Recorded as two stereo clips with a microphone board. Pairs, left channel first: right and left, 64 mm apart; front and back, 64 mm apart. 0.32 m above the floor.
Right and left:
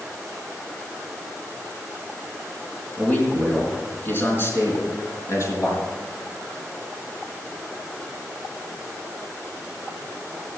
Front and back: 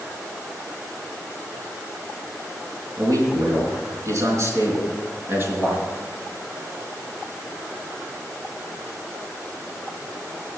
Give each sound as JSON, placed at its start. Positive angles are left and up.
{"t": 3.0, "sound": "a man speaking", "azimuth_deg": -160, "distance_m": 4.0}